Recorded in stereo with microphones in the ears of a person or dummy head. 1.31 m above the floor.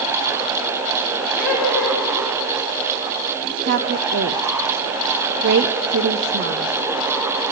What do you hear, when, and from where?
1.4 s laughter: centre (ahead or behind), 4.5 m
3.7 s a woman speaking: 50° right (ahead or behind), 0.6 m